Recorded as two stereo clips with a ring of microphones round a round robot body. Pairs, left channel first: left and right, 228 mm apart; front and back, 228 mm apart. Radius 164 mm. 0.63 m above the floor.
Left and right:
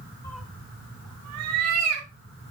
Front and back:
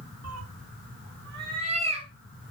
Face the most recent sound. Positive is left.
turn(degrees=-105)